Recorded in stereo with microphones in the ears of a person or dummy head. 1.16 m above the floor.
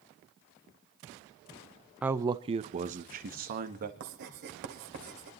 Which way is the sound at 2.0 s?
5° right (ahead or behind).